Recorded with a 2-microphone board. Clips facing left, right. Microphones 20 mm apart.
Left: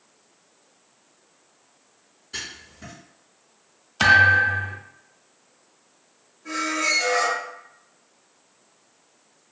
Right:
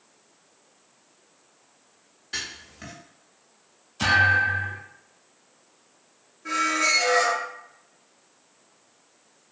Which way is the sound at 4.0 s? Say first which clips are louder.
Left 4 dB; 55° left (ahead or behind).